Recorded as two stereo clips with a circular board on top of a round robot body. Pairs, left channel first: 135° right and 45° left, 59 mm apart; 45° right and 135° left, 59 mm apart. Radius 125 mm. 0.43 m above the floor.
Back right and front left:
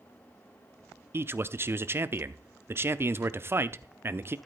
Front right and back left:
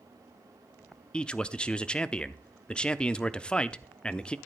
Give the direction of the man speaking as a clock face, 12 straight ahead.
11 o'clock.